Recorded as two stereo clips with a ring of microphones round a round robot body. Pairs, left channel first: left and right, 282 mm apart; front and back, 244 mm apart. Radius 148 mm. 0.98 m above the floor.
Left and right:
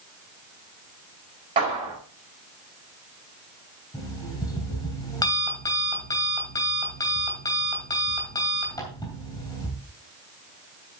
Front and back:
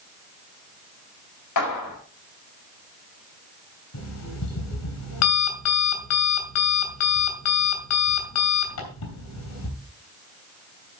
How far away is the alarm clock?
About 3 m.